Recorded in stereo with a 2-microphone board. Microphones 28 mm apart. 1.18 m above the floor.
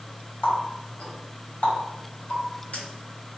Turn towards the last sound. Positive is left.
turn(degrees=60)  # may be behind; listen again after turning